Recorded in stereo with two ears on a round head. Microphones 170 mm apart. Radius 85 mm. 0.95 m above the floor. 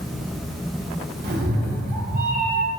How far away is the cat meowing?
About 1.6 m.